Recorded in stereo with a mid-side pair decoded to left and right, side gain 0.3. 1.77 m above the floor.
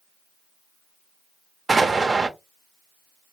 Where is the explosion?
40° right, 0.7 m.